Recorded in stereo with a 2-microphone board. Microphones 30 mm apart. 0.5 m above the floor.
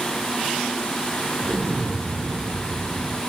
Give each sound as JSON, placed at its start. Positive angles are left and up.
{"t": 1.4, "sound": "an explosion", "side_deg": -50, "distance_m": 0.8}